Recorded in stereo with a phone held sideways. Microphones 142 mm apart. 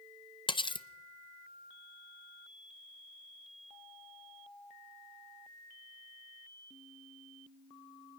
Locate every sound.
0.5 s cutlery clinking: 35° left (ahead or behind), 0.7 m